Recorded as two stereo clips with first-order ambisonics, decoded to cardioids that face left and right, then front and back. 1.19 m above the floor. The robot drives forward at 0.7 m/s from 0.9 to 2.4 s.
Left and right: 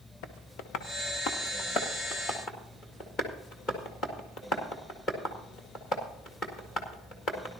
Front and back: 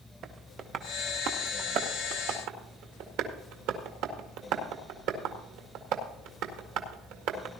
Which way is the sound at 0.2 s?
125° left.